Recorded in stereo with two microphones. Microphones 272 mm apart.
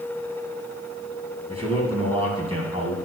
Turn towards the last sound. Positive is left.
turn(degrees=-20)  # may be behind; listen again after turning